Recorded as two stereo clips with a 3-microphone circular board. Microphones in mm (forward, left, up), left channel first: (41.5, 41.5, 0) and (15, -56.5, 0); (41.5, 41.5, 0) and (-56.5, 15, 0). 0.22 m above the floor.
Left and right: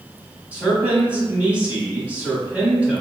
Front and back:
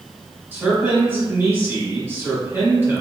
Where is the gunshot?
No gunshot in this recording.